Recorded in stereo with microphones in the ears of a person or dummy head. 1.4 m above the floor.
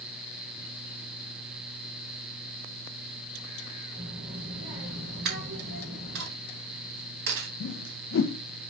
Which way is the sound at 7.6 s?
65° left (ahead or behind).